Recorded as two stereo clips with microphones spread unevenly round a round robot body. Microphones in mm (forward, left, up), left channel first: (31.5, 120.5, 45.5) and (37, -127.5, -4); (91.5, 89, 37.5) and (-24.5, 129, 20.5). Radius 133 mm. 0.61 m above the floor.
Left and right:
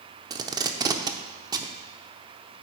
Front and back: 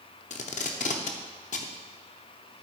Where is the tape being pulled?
20° right, 0.7 m.